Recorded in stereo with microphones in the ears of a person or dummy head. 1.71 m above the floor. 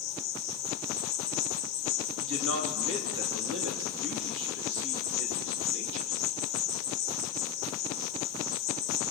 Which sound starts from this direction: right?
A man speaking, at 2.2 s.